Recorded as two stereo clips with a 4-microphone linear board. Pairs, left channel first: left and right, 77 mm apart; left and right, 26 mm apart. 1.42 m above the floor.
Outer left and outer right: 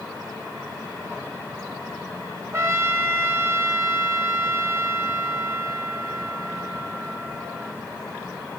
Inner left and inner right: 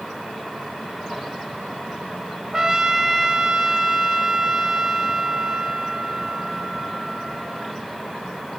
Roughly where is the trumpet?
Right.